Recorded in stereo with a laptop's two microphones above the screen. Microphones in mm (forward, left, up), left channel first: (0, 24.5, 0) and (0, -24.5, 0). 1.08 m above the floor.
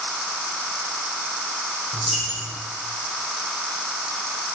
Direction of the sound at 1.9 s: Centre (ahead or behind).